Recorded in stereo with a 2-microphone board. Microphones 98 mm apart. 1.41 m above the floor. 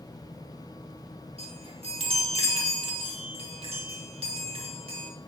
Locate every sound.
1.4 s a chime: 80° right, 2.0 m